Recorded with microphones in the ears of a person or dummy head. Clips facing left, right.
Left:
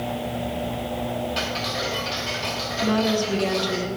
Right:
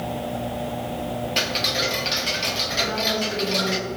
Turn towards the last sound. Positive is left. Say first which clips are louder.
# left 6 dB
turn(degrees=70)  # may be behind; listen again after turning